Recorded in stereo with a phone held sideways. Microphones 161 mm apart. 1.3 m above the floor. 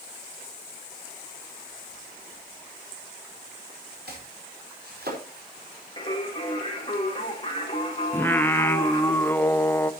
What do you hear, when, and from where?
4.1 s chopping: 80° right, 4.5 m
6.0 s singing: 30° left (ahead or behind), 3.5 m
8.1 s singing: 10° left (ahead or behind), 0.7 m